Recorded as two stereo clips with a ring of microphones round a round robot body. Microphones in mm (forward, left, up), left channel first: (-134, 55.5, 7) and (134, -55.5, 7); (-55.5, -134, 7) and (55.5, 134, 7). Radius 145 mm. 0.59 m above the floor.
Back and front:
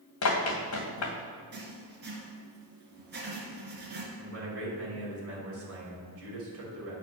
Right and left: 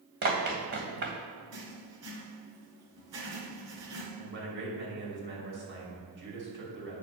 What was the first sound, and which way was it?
Running footsteps, 120° left.